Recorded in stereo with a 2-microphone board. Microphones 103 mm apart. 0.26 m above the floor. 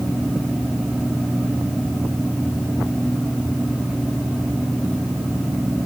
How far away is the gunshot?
I don't hear a gunshot.